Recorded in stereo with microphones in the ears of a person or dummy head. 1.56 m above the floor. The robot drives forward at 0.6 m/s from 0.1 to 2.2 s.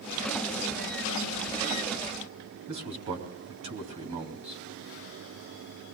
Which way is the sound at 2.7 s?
35° right (ahead or behind).